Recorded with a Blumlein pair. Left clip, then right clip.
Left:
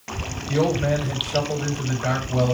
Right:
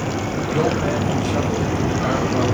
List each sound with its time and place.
0.5 s a man speaking: 5° right, 4 m